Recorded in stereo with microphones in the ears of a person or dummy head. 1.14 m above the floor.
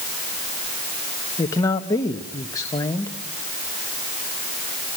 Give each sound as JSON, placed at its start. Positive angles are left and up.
{"t": 1.4, "sound": "a man speaking", "side_deg": 20, "distance_m": 1.2}